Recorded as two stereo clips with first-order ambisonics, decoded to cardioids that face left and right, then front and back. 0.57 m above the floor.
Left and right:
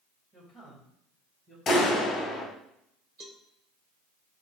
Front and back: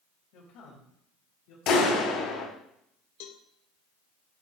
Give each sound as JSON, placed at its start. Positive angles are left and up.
{"t": 0.3, "sound": "a man speaking", "azimuth_deg": -5, "distance_m": 2.5}
{"t": 1.7, "sound": "a clap", "azimuth_deg": 25, "distance_m": 2.5}
{"t": 3.2, "sound": "a cowbell", "azimuth_deg": -15, "distance_m": 0.6}